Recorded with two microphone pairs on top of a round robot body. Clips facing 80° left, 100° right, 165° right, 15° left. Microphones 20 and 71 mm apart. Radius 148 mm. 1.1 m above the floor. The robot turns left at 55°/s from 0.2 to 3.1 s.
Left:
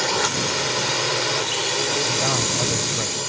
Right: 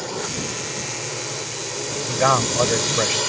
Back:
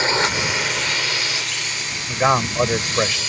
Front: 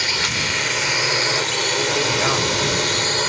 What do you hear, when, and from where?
0.0 s a drone: 135° left; by 3.3 s 25° right
2.1 s a man speaking: 100° right; by 3.2 s 155° right